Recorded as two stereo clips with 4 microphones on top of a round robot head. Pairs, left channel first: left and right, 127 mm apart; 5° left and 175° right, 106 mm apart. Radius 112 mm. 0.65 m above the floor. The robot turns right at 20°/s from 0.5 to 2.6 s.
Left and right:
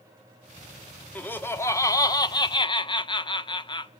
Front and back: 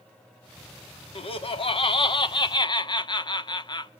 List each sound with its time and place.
1.1 s laughter: 15° left, 1.5 m; by 3.9 s 45° left, 1.5 m